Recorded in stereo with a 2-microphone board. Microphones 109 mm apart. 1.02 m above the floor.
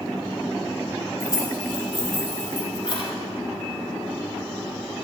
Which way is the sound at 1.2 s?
30° left (ahead or behind).